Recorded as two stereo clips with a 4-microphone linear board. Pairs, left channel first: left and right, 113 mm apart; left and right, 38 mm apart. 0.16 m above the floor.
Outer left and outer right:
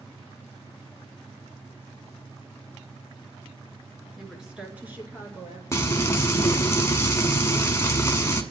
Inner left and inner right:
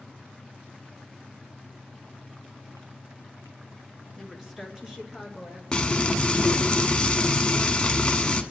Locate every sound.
4.2 s a woman speaking: centre (ahead or behind), 2.5 m; by 5.6 s 30° right (ahead or behind), 3 m
5.7 s frying: 25° left (ahead or behind), 1.0 m